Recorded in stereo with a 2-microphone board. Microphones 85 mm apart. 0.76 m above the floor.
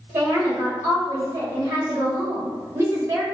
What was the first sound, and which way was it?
A woman speaking, 30° right (ahead or behind).